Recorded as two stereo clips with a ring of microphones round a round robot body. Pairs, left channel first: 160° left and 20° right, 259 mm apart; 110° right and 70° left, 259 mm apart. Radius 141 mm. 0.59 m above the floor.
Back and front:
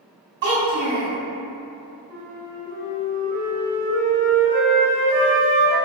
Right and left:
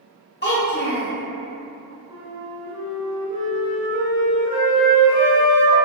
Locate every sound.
0.4 s a child speaking: 65° right, 1.1 m
2.1 s a flute: 30° left, 1.2 m